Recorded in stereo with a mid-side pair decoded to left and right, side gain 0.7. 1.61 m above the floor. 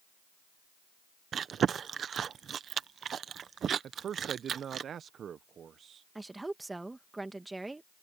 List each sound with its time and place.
1.3 s chewing: 35° right
3.8 s a man speaking: 35° right
6.2 s a woman speaking: 10° right